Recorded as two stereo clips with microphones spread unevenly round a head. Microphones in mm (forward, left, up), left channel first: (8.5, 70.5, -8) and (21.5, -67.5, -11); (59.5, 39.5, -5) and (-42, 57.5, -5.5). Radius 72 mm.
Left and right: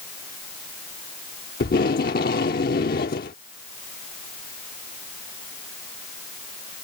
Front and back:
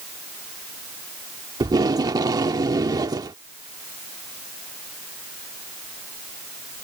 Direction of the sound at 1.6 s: 120° left.